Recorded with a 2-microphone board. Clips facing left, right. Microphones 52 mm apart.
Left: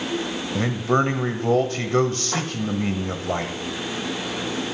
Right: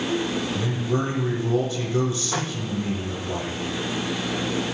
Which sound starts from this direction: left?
A man speaking, at 0.6 s.